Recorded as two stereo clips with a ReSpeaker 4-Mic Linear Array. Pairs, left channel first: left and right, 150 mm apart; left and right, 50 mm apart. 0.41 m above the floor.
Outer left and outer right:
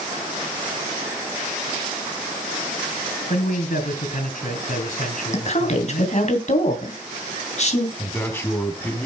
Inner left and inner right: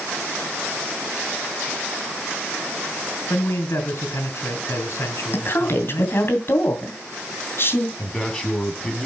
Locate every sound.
3.3 s a man speaking: 60° left (ahead or behind), 4 m
5.3 s a woman speaking: 50° left (ahead or behind), 2.5 m
8.0 s a man speaking: 15° left (ahead or behind), 3 m